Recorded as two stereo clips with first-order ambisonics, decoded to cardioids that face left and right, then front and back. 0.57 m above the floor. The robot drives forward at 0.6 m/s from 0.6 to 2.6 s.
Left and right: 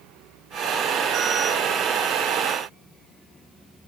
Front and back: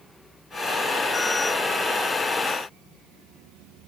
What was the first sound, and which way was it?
Only background noise.